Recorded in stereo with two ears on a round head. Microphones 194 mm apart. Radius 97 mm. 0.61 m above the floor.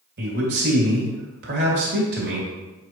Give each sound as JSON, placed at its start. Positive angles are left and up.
{"t": 0.2, "sound": "a man speaking", "side_deg": -50, "distance_m": 2.5}